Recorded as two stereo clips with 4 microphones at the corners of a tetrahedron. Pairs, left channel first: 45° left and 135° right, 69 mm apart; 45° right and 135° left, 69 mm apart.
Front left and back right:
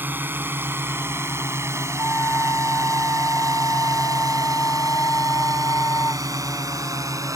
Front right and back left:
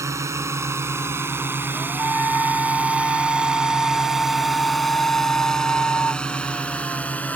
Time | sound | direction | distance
0.0 | a drone | 170° left | ?
2.0 | a flute | 10° left | ?